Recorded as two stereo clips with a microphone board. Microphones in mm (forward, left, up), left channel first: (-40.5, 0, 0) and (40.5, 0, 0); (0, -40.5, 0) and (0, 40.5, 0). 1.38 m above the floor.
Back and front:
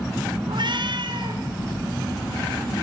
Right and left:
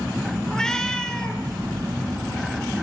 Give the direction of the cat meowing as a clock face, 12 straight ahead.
12 o'clock.